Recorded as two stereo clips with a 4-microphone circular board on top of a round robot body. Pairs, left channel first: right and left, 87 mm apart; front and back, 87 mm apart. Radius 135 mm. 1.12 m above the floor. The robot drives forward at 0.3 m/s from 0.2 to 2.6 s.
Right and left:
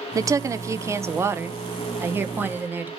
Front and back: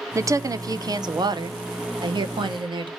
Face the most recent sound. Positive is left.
turn(degrees=155)